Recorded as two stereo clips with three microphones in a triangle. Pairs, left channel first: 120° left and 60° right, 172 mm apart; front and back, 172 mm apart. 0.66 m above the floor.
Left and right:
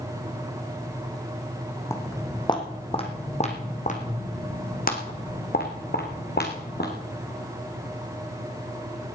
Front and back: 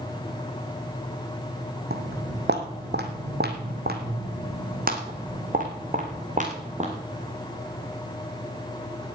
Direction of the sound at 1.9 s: 165° right.